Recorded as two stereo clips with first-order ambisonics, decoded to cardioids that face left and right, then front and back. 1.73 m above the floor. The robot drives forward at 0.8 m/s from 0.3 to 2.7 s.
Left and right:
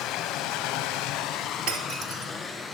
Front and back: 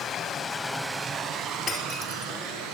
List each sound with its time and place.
0.0 s running water: 55° left, 0.8 m; by 2.7 s 160° left, 1.7 m
1.7 s breaking glass: 80° right, 3 m; by 2.3 s 95° right, 3 m